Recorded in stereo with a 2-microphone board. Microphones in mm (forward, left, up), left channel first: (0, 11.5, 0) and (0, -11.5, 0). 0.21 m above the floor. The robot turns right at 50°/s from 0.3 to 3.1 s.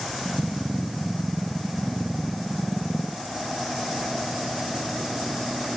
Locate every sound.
Only background noise.